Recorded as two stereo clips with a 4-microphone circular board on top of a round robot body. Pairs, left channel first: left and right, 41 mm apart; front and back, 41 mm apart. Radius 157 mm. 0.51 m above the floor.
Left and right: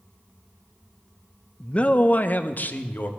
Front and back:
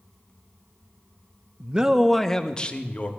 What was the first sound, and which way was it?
A man speaking, 135° left.